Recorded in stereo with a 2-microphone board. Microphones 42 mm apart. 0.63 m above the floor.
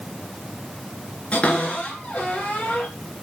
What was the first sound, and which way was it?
A cupboard door, 30° left (ahead or behind).